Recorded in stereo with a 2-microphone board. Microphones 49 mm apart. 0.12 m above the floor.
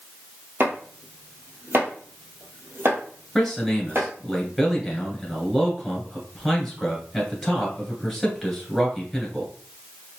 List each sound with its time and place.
0.6 s chopping: 50° right (ahead or behind), 1.5 m
3.4 s a man speaking: centre (ahead or behind), 1.9 m